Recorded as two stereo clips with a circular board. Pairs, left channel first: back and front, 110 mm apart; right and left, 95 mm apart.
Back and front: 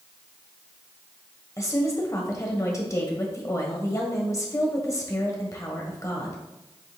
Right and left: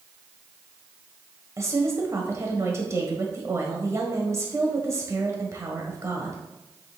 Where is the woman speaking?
135° left, 1.4 m.